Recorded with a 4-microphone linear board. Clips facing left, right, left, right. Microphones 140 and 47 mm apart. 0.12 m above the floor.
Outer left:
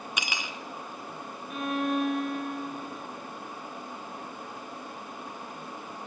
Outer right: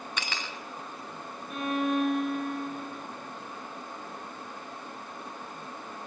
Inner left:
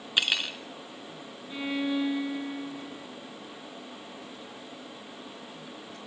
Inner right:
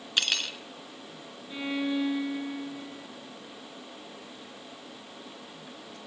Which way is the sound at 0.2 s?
15° left (ahead or behind).